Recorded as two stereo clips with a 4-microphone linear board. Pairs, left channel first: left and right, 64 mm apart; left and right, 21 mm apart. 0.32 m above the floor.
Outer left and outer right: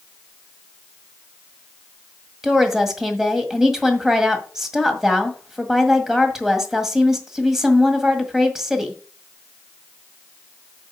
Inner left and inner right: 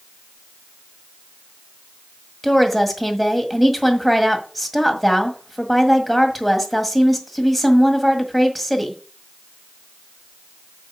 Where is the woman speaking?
5° right (ahead or behind), 1.7 m.